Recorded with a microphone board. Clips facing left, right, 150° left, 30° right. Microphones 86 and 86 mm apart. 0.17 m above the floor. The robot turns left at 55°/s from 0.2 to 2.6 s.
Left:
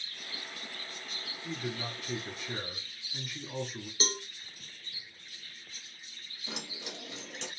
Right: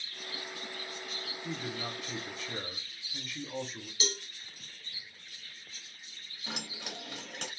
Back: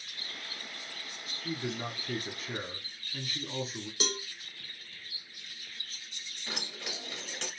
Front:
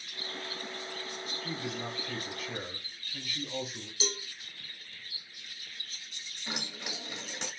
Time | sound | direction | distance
1.4 | a man speaking | 155° right | 1.1 m
4.0 | a cowbell | 135° left | 0.6 m
6.5 | keys jangling | 100° right | 1.5 m